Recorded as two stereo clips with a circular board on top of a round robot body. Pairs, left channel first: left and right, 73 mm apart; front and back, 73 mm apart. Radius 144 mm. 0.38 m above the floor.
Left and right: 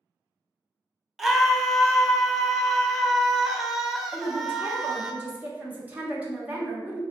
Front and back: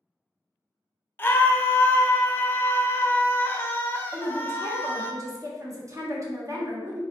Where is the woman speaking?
155° right, 1.3 m.